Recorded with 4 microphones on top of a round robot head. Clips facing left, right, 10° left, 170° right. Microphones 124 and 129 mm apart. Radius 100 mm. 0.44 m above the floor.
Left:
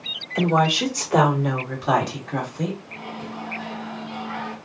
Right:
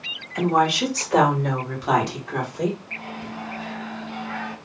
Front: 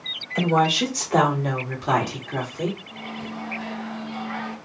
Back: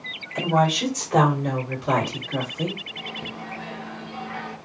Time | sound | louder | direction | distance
0.3 | a woman speaking | even, front 1 dB | 50° left | 1.7 m
2.9 | a microwave | left 1 dB, front 2 dB | 15° left | 2 m